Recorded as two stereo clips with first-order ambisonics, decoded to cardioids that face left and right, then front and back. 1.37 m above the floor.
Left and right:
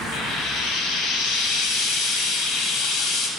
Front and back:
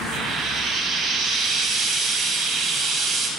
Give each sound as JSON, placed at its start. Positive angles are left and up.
{"t": 0.1, "sound": "frying", "azimuth_deg": 115, "distance_m": 2.5}